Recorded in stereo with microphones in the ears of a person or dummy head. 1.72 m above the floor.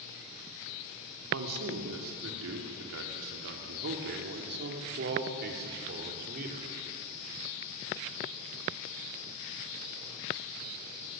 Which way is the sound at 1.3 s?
85° right.